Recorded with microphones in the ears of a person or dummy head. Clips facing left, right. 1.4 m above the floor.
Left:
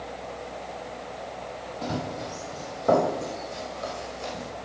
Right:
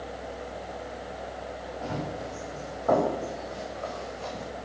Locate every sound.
1.8 s running footsteps: 50° left (ahead or behind), 3 m; by 4.5 s 15° left (ahead or behind), 3.5 m